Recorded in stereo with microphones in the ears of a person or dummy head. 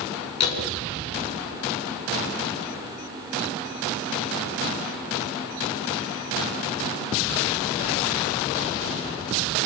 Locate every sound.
0.4 s a door slam: 35° left (ahead or behind), 7 m